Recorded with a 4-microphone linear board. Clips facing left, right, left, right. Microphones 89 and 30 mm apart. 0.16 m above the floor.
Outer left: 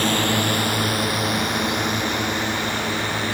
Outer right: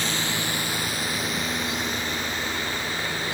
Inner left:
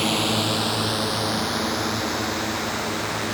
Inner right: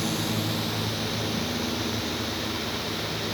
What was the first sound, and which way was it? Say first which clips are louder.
A drone: outer left 8 dB, inner left 6 dB; 55° left (ahead or behind).